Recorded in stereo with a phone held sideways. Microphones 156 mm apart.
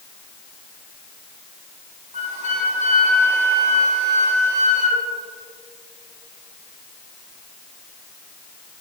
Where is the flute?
60° right (ahead or behind), 3.5 m.